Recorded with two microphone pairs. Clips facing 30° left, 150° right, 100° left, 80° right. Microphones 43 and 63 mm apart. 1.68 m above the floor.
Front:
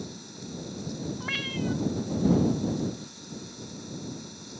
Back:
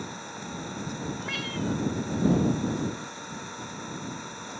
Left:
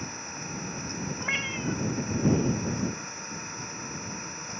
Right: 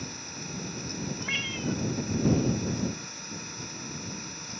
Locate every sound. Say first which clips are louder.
0.0 s an engine running: back 3 dB, left 2 dB; 165° left
1.2 s a cat meowing: front 2 dB, left 3 dB; 90° left